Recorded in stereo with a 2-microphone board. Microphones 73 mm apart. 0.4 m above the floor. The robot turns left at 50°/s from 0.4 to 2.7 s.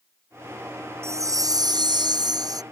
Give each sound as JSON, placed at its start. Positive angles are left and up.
{"t": 1.0, "sound": "a chime", "azimuth_deg": -40}